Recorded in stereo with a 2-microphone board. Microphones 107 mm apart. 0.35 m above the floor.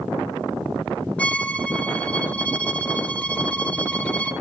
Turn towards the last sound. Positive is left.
turn(degrees=15)  # may be behind; listen again after turning